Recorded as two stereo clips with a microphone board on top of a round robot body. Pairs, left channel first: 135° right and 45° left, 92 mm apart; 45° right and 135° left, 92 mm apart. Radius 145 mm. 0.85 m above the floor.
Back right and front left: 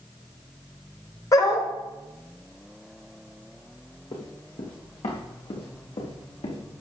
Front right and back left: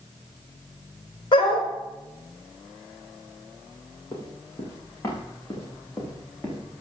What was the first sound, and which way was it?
A dog barking, 80° right.